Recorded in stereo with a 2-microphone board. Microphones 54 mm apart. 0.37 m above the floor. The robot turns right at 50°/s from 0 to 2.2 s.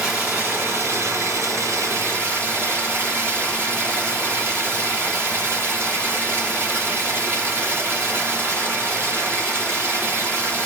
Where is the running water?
155° right, 2.5 m; by 10.7 s 45° right, 2.5 m.